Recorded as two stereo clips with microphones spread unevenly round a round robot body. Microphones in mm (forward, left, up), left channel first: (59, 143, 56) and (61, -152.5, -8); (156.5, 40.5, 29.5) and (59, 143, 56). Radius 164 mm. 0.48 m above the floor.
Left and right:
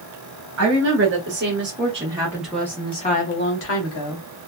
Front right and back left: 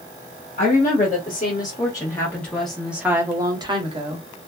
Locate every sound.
0.6 s a woman speaking: 70° right, 1.6 m; by 4.2 s 90° left, 1.2 m